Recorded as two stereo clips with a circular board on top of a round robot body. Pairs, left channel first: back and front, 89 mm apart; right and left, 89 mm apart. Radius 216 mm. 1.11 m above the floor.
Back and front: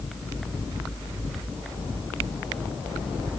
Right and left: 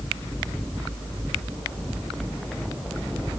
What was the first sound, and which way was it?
Only background noise.